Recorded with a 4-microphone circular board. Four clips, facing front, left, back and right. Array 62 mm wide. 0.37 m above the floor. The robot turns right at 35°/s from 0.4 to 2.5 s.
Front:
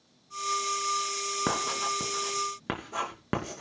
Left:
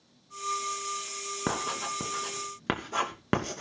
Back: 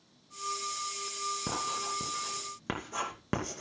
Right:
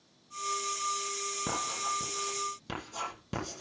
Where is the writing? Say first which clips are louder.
Left 3 dB, front 7 dB; 40° left, 2.5 m; by 3.6 s 75° left, 2.5 m.